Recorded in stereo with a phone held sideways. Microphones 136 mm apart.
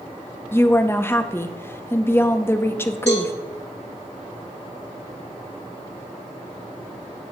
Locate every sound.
0.5 s a woman speaking: 15° left (ahead or behind), 0.6 m
3.1 s a cowbell: 55° left (ahead or behind), 4 m